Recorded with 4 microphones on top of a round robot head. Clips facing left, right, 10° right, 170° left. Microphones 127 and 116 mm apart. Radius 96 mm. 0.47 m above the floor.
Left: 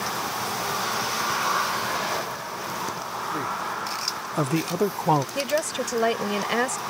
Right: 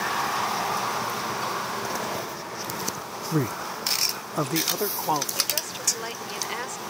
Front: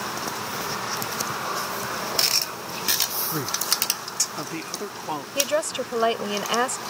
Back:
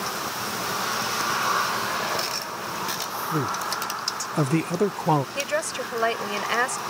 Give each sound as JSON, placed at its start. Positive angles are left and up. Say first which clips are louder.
{"t": 3.3, "sound": "a man speaking", "louder": "right 6 dB, back 4 dB", "azimuth_deg": -115}
{"t": 5.3, "sound": "a woman speaking", "louder": "left 10 dB, front 3 dB", "azimuth_deg": 60}